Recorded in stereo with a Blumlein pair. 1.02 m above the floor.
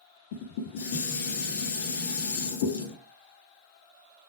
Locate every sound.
0.3 s dishes clattering: 60° left, 1.5 m